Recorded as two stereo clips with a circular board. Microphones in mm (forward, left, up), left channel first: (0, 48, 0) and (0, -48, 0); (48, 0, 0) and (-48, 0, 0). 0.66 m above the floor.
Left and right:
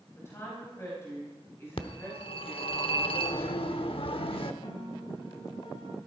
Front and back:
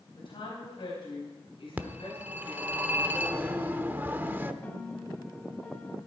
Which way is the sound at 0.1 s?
30° left.